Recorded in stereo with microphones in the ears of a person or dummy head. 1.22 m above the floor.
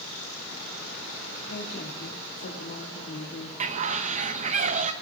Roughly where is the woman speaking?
Left.